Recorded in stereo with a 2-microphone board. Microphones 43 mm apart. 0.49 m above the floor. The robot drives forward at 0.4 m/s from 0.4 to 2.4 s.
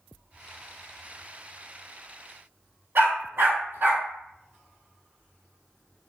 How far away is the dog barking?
About 1.7 m.